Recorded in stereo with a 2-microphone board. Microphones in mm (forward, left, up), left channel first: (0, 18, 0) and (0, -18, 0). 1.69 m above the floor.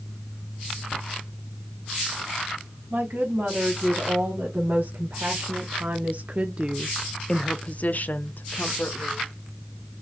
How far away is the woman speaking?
About 3 m.